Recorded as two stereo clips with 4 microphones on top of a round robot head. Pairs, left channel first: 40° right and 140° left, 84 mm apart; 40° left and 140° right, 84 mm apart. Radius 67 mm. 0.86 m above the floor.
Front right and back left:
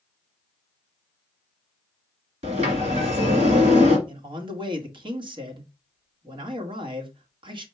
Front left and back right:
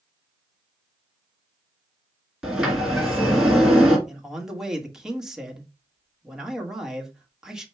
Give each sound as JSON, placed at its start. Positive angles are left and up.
{"t": 2.4, "sound": "a sliding door", "azimuth_deg": 135, "distance_m": 2.0}
{"t": 4.1, "sound": "a man speaking", "azimuth_deg": 135, "distance_m": 1.7}